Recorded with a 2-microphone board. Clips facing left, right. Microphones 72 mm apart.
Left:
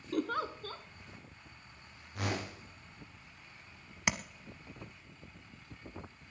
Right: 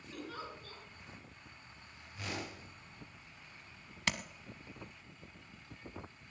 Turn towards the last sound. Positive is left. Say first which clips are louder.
# left 2 dB
turn(degrees=15)  # may be behind; listen again after turning